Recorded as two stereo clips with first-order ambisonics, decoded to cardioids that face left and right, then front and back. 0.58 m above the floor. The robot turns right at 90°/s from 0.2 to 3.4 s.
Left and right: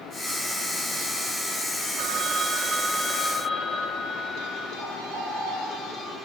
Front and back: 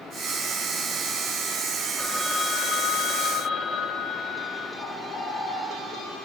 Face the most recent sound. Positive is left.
turn(degrees=-50)